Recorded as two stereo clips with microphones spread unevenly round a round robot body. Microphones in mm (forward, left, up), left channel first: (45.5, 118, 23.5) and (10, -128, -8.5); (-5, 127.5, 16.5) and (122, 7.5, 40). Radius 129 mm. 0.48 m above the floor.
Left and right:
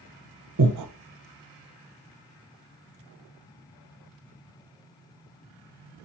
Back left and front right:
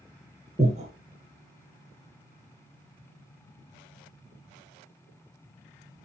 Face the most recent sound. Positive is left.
turn(degrees=-100)